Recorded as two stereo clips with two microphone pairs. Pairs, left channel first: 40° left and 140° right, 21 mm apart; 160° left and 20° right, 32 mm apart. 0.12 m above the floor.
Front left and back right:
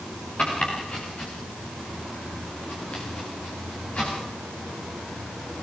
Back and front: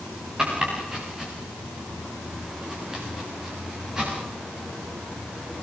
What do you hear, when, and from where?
0.4 s chopping: 55° left, 8.5 m